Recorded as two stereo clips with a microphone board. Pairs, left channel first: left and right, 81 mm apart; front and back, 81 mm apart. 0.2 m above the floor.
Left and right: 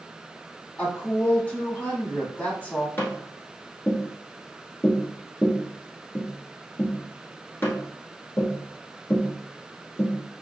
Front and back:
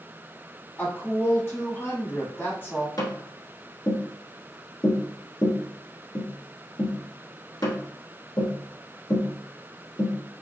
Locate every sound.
0.8 s a woman speaking: 40° left, 1.2 m
3.0 s tapping: 30° left, 1.2 m